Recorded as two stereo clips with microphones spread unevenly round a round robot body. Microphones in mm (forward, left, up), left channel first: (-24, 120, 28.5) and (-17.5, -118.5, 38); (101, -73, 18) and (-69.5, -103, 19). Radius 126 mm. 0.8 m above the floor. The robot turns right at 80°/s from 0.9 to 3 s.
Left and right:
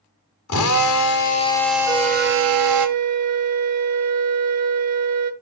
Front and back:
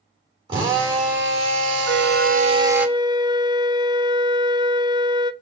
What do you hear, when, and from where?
0.5 s a drill: 115° left, 1.5 m; by 2.9 s 85° right, 1.5 m
1.9 s a flute: 165° left, 1.0 m; by 5.3 s 105° right, 1.0 m